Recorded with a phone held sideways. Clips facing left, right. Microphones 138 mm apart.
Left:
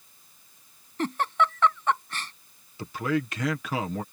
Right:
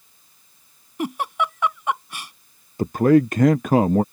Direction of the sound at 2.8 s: 50° right (ahead or behind).